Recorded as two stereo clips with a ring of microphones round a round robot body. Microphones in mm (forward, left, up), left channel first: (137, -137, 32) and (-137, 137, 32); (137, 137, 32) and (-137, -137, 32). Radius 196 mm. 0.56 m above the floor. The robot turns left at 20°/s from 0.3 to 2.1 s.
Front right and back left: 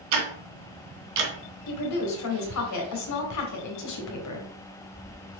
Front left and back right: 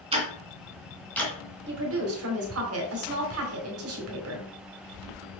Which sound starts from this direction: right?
A woman speaking, at 1.7 s.